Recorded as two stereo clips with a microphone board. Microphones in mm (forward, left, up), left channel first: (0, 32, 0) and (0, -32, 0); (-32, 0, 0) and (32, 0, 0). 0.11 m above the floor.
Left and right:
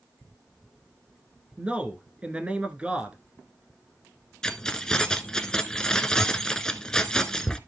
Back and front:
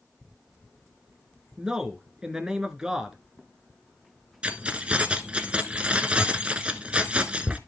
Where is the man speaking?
60° right, 1.3 m.